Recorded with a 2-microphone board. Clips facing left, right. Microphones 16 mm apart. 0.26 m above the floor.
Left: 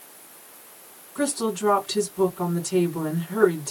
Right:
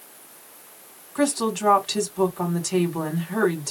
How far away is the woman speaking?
About 2 m.